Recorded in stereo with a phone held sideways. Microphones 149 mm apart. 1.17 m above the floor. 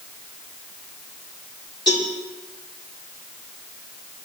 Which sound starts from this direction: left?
A cowbell, at 1.9 s.